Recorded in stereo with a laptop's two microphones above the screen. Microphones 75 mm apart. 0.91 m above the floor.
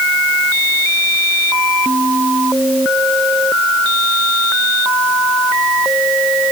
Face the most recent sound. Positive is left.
No sound to turn to.